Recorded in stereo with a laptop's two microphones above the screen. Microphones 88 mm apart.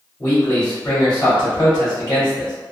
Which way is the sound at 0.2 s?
45° left (ahead or behind).